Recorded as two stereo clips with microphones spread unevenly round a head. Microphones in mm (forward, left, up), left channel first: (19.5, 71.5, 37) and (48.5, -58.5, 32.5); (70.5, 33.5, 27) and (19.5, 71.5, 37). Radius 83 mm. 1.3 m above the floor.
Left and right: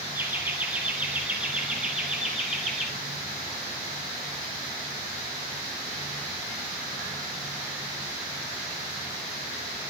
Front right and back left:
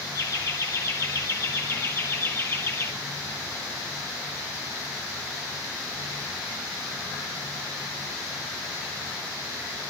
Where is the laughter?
Straight ahead, 4 m; by 2.9 s 10° left, 6 m.